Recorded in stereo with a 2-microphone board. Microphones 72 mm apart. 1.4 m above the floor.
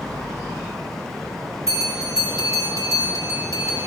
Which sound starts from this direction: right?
A bell, at 1.7 s.